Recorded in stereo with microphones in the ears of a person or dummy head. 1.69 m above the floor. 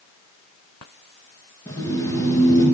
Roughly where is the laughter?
Centre.